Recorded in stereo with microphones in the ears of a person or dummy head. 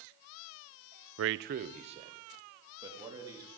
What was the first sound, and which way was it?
A man speaking, 70° right (ahead or behind).